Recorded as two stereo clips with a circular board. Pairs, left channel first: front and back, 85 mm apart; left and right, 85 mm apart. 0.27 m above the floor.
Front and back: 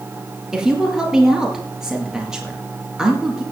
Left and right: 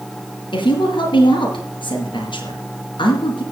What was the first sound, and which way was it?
A woman speaking, 95° left.